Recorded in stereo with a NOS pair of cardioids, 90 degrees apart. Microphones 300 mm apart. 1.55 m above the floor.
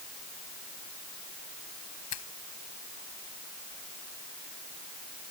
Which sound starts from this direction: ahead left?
A finger snap, at 2.1 s.